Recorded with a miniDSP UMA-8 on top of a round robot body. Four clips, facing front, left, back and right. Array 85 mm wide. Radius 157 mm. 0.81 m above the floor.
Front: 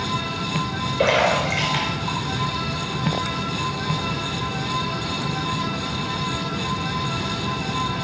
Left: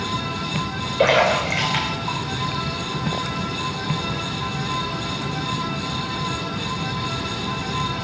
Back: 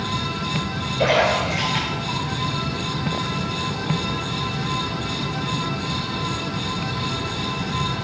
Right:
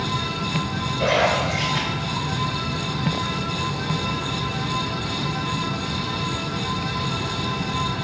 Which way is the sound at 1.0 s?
65° left.